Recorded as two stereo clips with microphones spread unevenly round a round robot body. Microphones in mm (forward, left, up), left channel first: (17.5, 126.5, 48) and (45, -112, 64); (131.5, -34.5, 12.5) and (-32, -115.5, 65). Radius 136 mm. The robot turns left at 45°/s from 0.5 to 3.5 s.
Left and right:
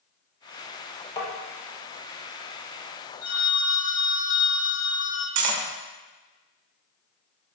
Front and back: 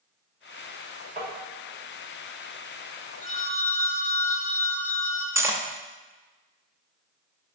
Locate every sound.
1.2 s tapping: 150° left, 1.0 m; by 1.3 s 145° left, 1.0 m
3.2 s a phone ringing: 75° left, 1.1 m; by 5.2 s 60° left, 1.1 m
5.3 s cutlery clinking: 80° right, 0.6 m